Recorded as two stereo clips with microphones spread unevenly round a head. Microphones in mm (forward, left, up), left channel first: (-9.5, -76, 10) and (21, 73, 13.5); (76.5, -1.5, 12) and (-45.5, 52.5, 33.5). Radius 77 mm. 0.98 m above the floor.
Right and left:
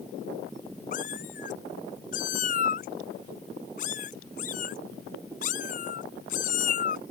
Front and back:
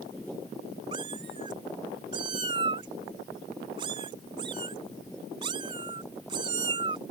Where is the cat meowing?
145° right.